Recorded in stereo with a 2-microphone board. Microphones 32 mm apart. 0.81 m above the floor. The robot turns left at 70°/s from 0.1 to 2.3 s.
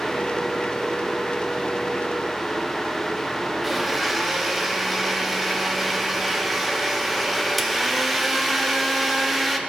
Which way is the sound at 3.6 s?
5° right (ahead or behind).